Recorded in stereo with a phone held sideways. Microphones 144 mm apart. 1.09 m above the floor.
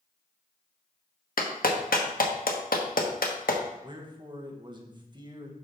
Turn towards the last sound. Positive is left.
turn(degrees=-35)  # may be behind; listen again after turning